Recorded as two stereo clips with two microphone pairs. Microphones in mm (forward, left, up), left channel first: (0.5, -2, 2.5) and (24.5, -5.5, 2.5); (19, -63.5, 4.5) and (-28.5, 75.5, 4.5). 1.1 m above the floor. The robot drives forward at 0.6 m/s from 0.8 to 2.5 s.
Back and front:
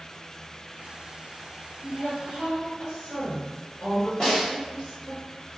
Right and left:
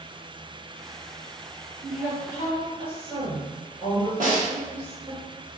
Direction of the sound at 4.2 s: 125° left.